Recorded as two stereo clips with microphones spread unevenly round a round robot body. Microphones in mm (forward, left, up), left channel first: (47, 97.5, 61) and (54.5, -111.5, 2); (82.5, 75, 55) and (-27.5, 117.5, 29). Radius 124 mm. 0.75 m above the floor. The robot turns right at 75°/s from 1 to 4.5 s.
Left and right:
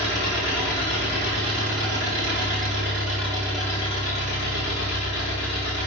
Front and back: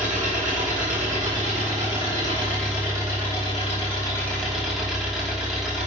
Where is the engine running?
170° left, 4 m; by 5.9 s 70° left, 4 m.